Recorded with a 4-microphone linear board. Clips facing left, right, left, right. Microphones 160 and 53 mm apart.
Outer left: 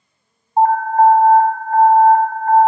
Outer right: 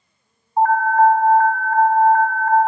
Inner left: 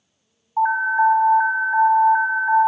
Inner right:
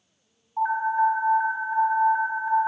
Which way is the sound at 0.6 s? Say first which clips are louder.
Outer left 2 dB, inner left 5 dB; 35° left (ahead or behind).